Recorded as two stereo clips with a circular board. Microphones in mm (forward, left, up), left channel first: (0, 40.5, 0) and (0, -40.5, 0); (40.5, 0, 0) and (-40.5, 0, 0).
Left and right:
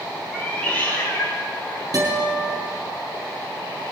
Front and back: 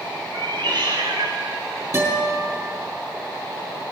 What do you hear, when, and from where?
0.3 s a cat meowing: 165° left, 2.5 m; by 1.8 s 150° left, 3 m
1.9 s a guitar: 130° right, 4.5 m